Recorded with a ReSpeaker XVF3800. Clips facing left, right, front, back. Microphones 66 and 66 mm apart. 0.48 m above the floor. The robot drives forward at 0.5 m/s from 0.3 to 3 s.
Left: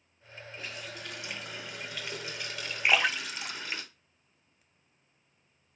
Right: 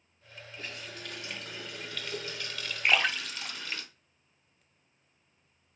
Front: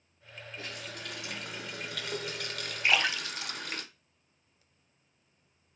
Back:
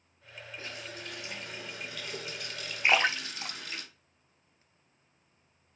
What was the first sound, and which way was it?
A running tap, 10° left.